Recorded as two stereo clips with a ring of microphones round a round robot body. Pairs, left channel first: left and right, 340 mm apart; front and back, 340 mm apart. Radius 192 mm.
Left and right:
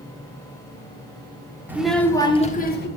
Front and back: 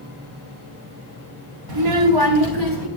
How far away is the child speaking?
About 1.4 m.